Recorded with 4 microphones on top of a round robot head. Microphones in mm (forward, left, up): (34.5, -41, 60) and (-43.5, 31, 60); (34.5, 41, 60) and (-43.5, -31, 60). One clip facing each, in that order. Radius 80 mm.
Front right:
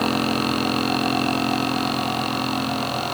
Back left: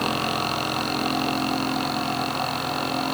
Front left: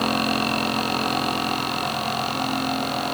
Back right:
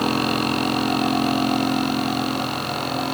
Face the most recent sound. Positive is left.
No sound to turn to.